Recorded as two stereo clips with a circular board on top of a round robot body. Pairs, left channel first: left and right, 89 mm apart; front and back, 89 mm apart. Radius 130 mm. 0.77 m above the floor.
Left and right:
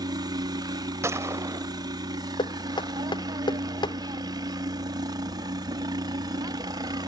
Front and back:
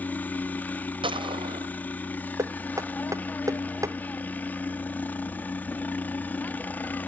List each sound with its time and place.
0.0 s a helicopter: 65° right
1.0 s a gunshot: 150° right
2.4 s knocking: 125° left